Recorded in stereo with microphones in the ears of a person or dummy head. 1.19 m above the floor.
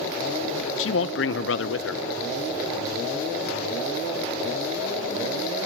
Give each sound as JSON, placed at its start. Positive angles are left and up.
{"t": 0.8, "sound": "a man speaking", "side_deg": 65, "distance_m": 0.9}